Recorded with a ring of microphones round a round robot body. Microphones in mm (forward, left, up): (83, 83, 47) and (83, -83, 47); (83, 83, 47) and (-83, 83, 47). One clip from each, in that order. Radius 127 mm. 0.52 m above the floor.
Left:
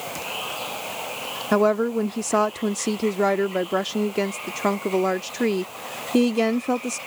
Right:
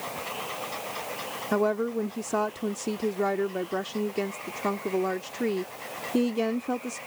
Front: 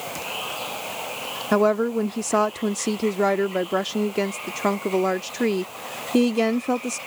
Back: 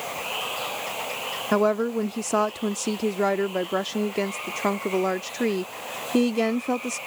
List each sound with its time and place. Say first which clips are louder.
0.0 s running water: left 4 dB, back 1 dB; 130° left
1.5 s a woman speaking: left 6 dB, front 3 dB; 90° left